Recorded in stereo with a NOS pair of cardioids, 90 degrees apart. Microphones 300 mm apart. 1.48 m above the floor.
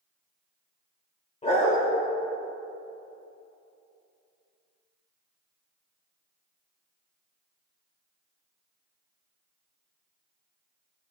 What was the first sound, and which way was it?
A dog barking, 20° left.